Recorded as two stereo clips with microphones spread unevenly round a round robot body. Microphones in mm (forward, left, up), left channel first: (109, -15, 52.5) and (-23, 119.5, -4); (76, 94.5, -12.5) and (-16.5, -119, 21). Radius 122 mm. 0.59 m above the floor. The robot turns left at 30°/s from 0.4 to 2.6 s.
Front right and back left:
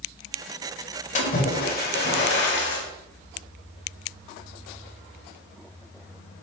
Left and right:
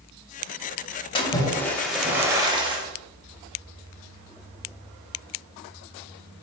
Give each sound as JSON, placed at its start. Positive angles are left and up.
{"t": 1.1, "sound": "a splash", "azimuth_deg": -5, "distance_m": 0.6}